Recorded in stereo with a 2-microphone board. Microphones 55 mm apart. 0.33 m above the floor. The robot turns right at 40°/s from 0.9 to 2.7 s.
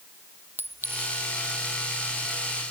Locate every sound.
0.6 s a clink: 40° right (ahead or behind); by 1.2 s 30° right (ahead or behind)